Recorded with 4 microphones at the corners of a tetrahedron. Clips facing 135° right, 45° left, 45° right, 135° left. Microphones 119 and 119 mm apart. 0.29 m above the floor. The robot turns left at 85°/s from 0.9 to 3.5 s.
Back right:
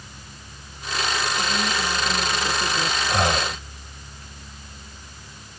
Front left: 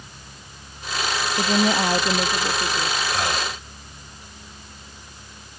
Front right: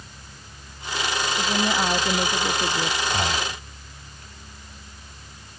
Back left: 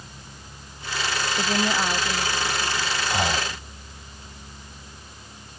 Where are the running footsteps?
No running footsteps in this recording.